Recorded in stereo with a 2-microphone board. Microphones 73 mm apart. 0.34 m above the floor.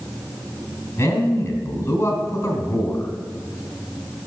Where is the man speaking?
45° left (ahead or behind), 3 m.